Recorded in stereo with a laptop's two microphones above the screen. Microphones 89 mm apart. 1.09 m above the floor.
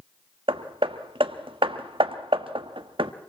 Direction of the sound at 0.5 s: 75° right (ahead or behind).